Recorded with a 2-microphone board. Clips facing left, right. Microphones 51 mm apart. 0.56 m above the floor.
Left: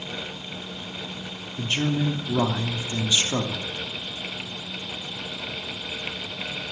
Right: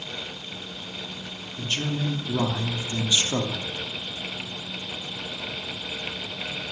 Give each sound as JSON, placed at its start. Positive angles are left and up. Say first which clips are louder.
{"t": 1.6, "sound": "a man speaking", "louder": "left 4 dB", "side_deg": 20, "distance_m": 1.1}